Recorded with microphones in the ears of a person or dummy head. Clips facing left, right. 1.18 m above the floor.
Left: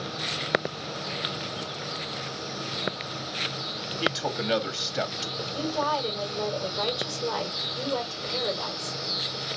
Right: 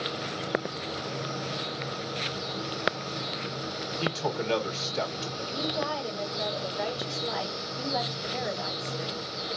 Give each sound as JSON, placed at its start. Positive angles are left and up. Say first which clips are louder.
{"t": 4.0, "sound": "a man speaking", "louder": "left 1 dB", "side_deg": 15, "distance_m": 2.0}
{"t": 5.4, "sound": "a woman speaking", "louder": "left 3 dB", "side_deg": 65, "distance_m": 4.5}